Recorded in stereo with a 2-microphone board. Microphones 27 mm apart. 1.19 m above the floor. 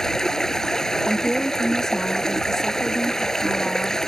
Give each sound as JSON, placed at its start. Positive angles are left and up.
{"t": 0.0, "sound": "running water", "side_deg": 20}
{"t": 1.1, "sound": "a woman speaking", "side_deg": 20}